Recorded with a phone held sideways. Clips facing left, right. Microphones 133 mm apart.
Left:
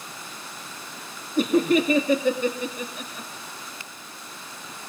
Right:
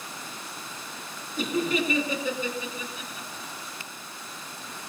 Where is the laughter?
55° left (ahead or behind), 2.5 m.